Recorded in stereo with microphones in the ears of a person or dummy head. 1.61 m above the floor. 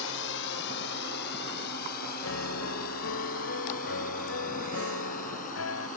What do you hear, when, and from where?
0.0 s a drone: 65° left (ahead or behind); by 6.0 s 40° left (ahead or behind)
2.2 s a piano: 80° left